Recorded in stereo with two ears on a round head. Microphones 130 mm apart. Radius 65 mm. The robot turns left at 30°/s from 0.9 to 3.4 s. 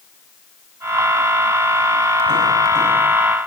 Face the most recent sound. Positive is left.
No sound to turn to.